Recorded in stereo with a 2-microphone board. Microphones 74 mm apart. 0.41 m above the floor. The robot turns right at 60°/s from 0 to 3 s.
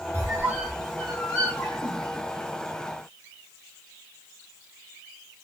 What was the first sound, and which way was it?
A squeak, 45° right (ahead or behind).